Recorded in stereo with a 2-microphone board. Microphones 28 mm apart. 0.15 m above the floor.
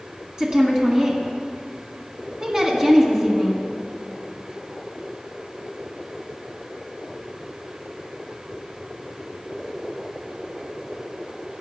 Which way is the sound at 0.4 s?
25° right (ahead or behind).